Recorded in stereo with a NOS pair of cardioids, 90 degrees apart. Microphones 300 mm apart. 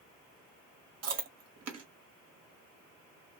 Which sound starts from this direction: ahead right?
Chewing, at 1.0 s.